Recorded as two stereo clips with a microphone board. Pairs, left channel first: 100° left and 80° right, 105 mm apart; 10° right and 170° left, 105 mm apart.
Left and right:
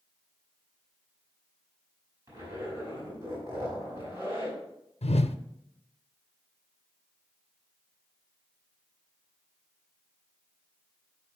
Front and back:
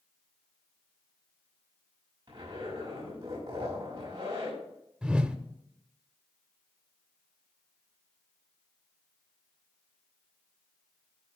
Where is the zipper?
145° right, 5.5 m.